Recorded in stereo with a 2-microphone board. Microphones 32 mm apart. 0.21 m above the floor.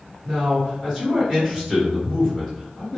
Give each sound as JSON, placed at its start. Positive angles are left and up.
{"t": 0.2, "sound": "a man speaking", "side_deg": 10, "distance_m": 1.9}